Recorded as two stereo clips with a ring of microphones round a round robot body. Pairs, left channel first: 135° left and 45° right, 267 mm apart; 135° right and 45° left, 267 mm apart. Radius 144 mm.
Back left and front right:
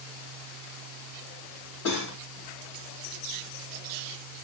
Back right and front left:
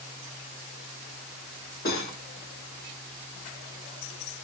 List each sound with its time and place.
1.9 s cutlery clinking: 170° left, 1.6 m